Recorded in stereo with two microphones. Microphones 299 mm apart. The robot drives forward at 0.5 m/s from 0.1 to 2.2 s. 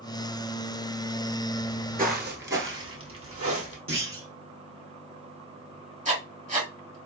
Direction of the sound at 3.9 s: 45° right (ahead or behind).